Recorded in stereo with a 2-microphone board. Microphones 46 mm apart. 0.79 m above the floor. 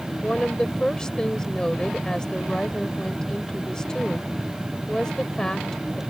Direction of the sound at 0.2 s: 15° left (ahead or behind).